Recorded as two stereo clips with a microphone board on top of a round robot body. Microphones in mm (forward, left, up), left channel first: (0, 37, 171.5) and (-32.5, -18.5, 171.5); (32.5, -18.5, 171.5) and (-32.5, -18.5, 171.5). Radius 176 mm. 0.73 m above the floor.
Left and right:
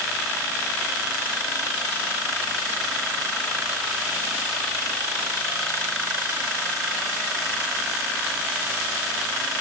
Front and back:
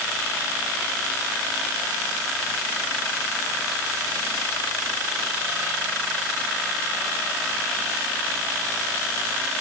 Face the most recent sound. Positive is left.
No sound to turn to.